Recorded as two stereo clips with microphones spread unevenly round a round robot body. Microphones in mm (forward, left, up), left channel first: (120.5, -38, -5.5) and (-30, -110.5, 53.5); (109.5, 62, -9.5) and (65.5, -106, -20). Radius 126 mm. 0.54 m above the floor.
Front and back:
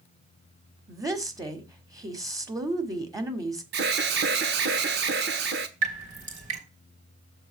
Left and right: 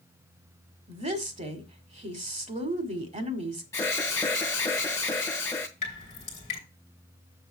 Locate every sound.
0.9 s a woman speaking: 70° right, 1.7 m
3.7 s an alarm: 155° left, 0.9 m
5.8 s dripping: 140° left, 2.5 m